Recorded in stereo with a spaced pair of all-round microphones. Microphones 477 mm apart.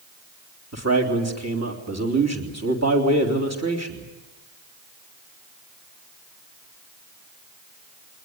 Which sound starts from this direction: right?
A man speaking, at 0.7 s.